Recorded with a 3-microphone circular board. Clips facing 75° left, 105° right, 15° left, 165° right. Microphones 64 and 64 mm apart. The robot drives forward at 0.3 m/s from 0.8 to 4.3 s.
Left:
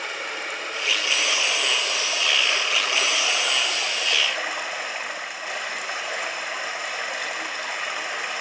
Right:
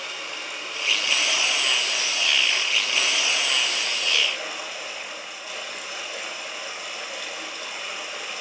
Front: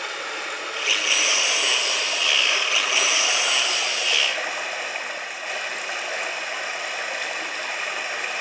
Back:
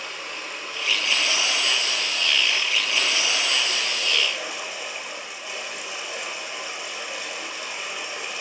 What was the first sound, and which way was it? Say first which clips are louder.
Running water: left 4 dB, front 4 dB; 45° left.